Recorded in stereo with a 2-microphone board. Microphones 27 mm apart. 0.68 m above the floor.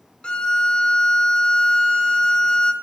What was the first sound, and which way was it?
A violin, 35° left (ahead or behind).